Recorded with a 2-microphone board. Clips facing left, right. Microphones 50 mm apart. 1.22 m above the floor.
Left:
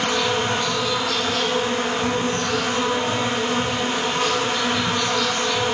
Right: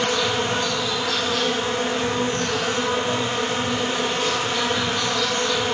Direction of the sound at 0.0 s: 55° left (ahead or behind).